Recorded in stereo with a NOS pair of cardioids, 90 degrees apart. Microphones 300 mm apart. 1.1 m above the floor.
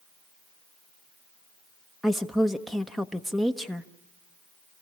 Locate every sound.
2.0 s a woman speaking: straight ahead, 1.0 m